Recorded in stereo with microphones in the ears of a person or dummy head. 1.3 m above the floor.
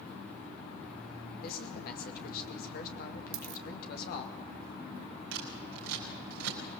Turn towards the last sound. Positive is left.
turn(degrees=-85)